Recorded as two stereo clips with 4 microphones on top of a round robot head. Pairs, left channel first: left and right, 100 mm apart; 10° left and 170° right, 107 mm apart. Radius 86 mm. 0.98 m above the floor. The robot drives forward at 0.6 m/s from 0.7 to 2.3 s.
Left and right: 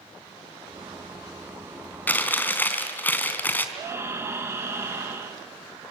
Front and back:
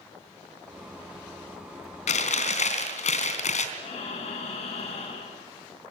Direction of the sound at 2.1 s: 20° left.